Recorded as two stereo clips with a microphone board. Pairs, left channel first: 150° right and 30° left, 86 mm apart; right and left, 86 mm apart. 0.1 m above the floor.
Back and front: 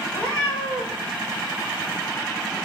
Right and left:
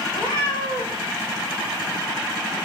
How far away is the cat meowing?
About 3.5 m.